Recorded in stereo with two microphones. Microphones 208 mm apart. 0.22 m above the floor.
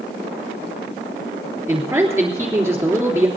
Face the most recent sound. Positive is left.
turn(degrees=-15)  # may be behind; listen again after turning